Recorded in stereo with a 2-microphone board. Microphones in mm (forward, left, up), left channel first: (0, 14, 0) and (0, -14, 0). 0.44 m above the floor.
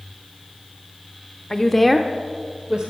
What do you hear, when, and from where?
1.5 s a woman speaking: 20° left (ahead or behind), 1.1 m; by 2.9 s 40° right (ahead or behind), 1.5 m